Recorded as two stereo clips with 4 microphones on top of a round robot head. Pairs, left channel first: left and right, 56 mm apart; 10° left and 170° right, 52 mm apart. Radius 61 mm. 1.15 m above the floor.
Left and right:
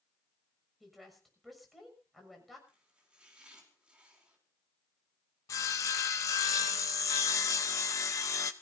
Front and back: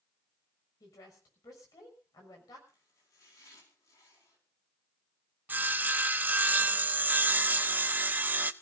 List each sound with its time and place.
0.8 s a woman speaking: straight ahead, 6.5 m
2.7 s chopping: 20° right, 5 m
5.5 s sawing: 130° left, 0.9 m